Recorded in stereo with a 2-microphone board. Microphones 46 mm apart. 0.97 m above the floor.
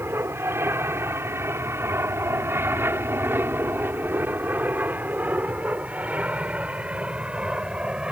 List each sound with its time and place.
0.0 s an aircraft: 60° right (ahead or behind); by 8.1 s 20° right (ahead or behind)